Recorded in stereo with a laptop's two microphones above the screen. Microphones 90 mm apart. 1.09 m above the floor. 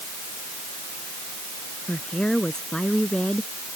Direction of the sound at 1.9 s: 10° left (ahead or behind).